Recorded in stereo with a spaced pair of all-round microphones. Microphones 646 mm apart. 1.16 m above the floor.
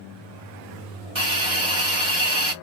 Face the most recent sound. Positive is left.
turn(degrees=-45)  # may be behind; listen again after turning